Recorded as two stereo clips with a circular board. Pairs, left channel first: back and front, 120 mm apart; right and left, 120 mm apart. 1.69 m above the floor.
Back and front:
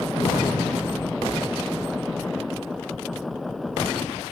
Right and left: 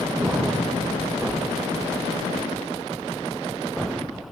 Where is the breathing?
145° left, 6 m.